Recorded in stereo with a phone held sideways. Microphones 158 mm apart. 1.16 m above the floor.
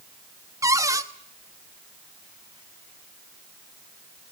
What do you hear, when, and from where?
0.6 s a cupboard door: 20° right (ahead or behind), 1.2 m